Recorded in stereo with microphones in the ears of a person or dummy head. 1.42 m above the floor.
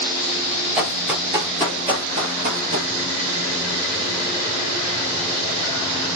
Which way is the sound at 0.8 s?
Centre (ahead or behind).